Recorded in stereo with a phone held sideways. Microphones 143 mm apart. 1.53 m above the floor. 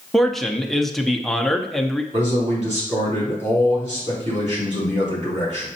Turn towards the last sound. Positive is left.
turn(degrees=-55)  # may be behind; listen again after turning